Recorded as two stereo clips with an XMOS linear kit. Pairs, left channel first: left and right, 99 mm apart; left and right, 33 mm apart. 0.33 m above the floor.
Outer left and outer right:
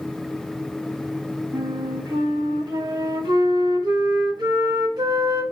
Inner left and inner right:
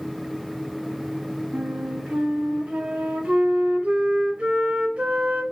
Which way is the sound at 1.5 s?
45° right (ahead or behind).